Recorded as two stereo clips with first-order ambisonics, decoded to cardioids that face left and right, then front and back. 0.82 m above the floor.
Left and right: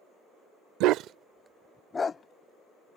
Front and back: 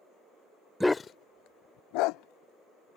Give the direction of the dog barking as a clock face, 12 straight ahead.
3 o'clock.